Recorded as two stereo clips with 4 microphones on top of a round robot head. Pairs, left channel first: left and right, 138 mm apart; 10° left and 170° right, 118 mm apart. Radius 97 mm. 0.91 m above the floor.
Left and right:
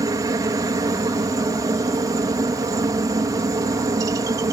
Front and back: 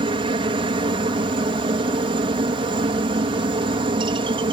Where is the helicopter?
145° right.